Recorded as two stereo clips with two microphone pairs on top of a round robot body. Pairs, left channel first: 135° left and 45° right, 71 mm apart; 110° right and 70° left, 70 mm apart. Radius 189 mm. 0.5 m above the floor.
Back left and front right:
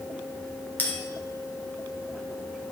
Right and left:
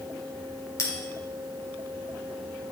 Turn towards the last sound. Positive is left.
turn(degrees=-160)